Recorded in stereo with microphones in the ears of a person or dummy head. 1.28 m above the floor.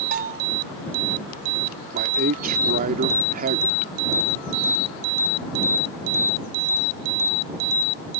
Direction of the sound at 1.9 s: 40° right (ahead or behind).